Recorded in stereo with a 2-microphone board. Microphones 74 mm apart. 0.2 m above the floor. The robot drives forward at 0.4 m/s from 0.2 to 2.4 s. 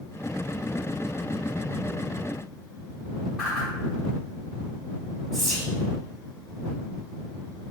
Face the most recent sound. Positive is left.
turn(degrees=0)  # may be behind; listen again after turning